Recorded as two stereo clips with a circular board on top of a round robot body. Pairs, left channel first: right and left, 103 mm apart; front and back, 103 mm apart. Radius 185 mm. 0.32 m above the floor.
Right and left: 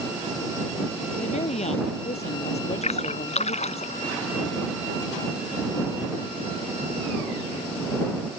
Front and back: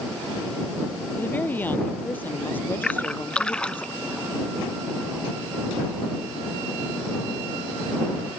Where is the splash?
80° right.